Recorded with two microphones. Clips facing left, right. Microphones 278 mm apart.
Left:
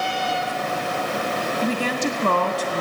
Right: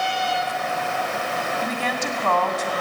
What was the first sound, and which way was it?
A woman speaking, 40° left (ahead or behind).